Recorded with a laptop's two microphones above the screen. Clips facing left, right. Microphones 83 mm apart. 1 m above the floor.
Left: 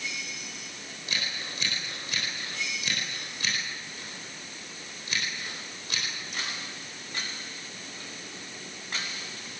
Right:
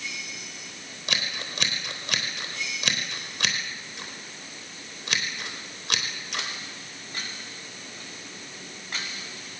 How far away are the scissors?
About 5 m.